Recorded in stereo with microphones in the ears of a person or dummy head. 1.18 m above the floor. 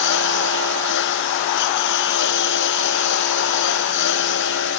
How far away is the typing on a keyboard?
No typing on a keyboard in this recording.